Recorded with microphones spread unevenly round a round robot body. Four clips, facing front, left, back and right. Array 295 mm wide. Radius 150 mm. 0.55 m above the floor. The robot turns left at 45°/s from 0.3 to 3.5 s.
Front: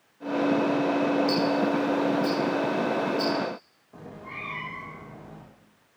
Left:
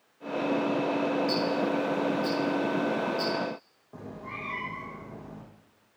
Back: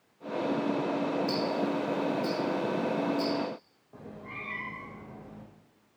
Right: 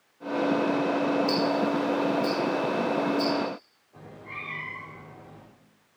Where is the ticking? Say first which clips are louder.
Right 2 dB, front 6 dB; 95° right, 7 m; by 3.3 s 175° left, 7 m.